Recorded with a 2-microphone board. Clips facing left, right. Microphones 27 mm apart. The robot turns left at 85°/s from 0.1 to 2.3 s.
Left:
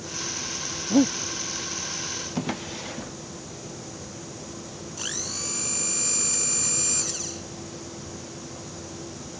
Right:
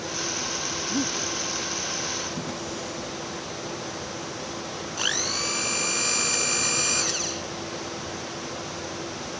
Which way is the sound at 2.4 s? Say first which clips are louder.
Left 1 dB; 30° left (ahead or behind).